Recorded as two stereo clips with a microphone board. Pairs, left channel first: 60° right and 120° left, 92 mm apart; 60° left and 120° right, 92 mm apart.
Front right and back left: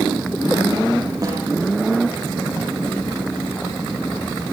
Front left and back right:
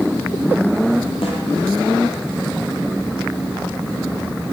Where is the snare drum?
75° left, 9.5 m.